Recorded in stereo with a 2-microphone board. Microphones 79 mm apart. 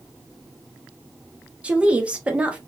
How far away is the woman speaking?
About 0.9 m.